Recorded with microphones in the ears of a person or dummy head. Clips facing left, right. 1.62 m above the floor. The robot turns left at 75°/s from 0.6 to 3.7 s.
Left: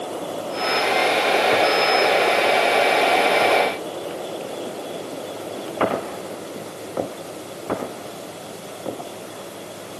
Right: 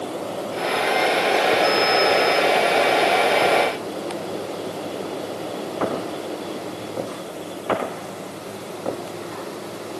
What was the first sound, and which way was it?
Only background noise.